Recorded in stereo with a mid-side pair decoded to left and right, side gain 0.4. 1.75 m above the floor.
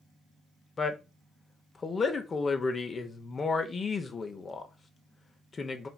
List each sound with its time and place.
0.8 s a man speaking: 45° left, 0.6 m